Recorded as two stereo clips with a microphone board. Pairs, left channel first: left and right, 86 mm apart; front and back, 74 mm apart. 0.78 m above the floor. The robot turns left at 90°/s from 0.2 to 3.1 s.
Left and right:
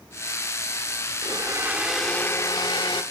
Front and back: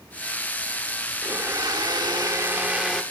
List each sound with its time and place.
1.2 s a blender: 115° right, 0.5 m; by 3.0 s 85° left, 0.5 m